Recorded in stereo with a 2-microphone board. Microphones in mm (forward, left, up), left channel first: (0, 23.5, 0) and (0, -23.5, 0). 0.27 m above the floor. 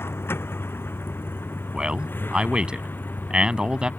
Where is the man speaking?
20° right (ahead or behind).